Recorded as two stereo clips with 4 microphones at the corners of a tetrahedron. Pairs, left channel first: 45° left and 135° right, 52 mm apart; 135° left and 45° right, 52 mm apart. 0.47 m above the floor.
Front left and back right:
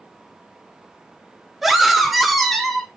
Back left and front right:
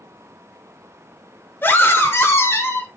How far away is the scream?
About 1.7 m.